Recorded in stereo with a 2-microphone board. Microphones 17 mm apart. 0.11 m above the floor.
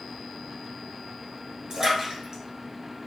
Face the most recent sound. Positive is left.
turn(degrees=-40)  # may be behind; listen again after turning